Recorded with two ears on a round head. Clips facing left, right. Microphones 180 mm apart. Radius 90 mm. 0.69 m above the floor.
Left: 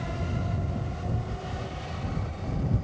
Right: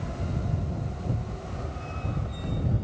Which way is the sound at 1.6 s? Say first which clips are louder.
Even; 10° right (ahead or behind).